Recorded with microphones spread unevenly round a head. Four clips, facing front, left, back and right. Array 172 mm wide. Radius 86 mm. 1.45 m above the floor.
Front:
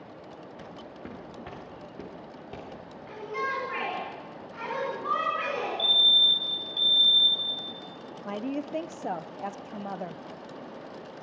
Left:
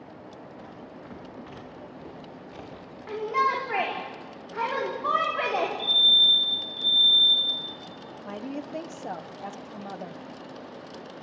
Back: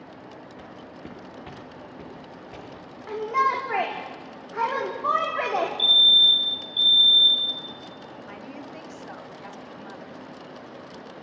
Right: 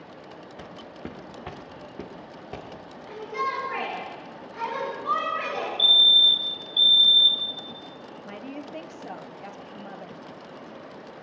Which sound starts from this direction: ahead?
A woman speaking, at 8.2 s.